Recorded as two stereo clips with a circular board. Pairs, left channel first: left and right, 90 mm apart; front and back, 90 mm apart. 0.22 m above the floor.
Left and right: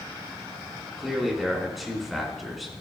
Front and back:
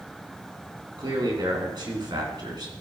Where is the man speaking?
Straight behind, 3 m.